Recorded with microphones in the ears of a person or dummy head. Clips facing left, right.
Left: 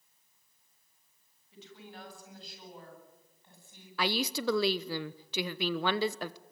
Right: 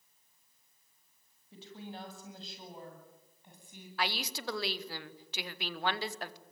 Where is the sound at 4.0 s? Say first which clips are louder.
Left 6 dB; 65° left (ahead or behind), 1.0 m.